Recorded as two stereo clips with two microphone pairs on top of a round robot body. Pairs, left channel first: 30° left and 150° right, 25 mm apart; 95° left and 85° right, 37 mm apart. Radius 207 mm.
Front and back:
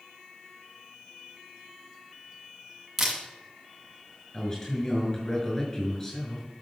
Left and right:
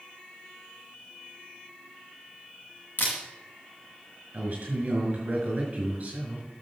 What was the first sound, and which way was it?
A camera shutter, 130° left.